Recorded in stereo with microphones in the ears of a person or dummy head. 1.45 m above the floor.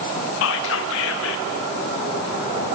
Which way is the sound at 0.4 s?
75° left (ahead or behind).